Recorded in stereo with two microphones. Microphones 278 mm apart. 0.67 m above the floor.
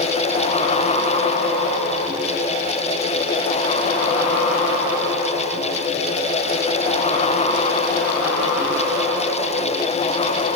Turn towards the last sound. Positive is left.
No sound to turn to.